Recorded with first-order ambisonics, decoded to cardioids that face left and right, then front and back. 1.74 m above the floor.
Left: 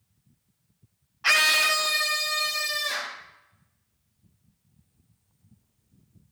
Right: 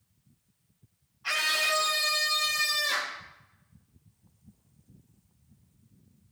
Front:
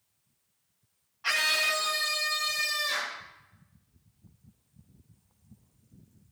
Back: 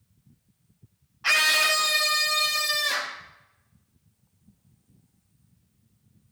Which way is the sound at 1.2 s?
105° left.